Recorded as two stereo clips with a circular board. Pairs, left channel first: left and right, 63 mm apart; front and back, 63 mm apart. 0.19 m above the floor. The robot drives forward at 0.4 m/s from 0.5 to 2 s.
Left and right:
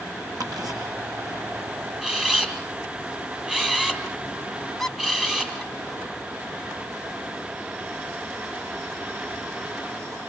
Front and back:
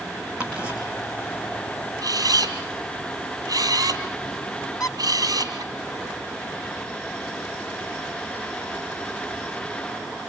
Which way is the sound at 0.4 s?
105° right.